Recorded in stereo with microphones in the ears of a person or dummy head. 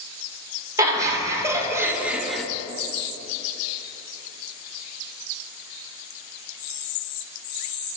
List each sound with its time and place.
0.8 s laughter: 20° right (ahead or behind), 2 m; by 2.4 s 5° left (ahead or behind), 0.6 m